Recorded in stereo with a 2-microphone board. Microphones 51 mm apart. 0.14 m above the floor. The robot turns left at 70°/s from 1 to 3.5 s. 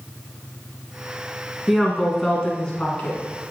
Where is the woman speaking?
5° right (ahead or behind), 1.6 m; by 3.2 s 20° left (ahead or behind), 1.6 m.